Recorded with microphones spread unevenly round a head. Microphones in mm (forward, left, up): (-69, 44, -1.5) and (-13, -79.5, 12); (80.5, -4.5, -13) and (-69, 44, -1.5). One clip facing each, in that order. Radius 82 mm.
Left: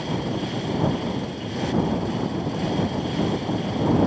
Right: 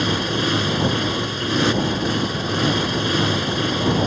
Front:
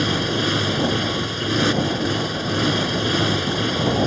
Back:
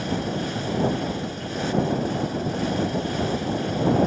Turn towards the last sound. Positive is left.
turn(degrees=-45)